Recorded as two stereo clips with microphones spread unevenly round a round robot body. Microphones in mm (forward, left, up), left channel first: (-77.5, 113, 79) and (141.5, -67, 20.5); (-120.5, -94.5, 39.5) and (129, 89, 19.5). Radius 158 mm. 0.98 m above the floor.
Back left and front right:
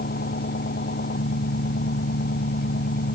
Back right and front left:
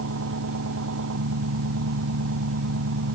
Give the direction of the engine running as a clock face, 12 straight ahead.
9 o'clock.